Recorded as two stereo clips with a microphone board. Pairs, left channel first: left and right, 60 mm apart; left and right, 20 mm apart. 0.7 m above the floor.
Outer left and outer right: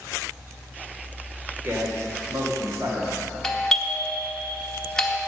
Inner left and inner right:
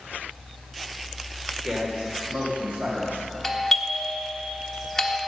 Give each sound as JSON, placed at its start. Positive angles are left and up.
{"t": 1.6, "sound": "a man speaking", "side_deg": -40, "distance_m": 2.0}
{"t": 3.4, "sound": "a doorbell", "side_deg": 10, "distance_m": 1.0}